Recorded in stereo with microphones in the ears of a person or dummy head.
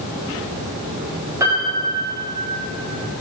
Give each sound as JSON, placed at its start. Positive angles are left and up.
{"t": 1.4, "sound": "a piano", "side_deg": -15, "distance_m": 4.5}